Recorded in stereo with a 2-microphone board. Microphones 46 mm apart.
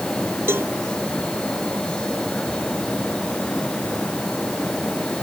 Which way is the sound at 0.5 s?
55° right (ahead or behind).